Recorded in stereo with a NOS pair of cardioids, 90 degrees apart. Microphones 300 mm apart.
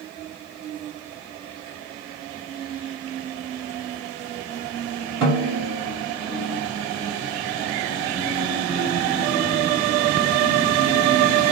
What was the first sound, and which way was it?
A snare drum, 55° right.